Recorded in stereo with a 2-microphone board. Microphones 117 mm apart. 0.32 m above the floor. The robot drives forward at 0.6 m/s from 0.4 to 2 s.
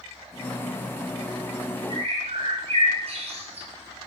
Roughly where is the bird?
Right.